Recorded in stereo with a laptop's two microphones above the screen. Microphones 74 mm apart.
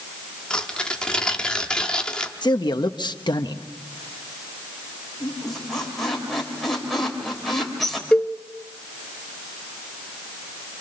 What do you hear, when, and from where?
0.5 s tearing paper: 10° left (ahead or behind), 1.3 m
2.4 s a man speaking: 80° left, 0.9 m
5.2 s a squeak: centre (ahead or behind), 3 m
8.1 s a cowbell: 15° left (ahead or behind), 0.7 m